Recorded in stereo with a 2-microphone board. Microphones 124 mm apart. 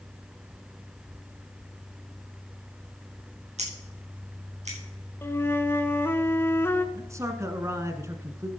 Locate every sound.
3.6 s scissors: 65° right (ahead or behind), 4.5 m
5.2 s a flute: 20° left (ahead or behind), 0.7 m
7.0 s a man speaking: 25° right (ahead or behind), 1.1 m